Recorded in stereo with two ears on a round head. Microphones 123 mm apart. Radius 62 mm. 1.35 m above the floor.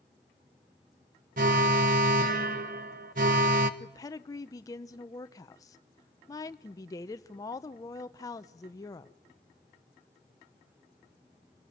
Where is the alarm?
60° right (ahead or behind), 1.2 m.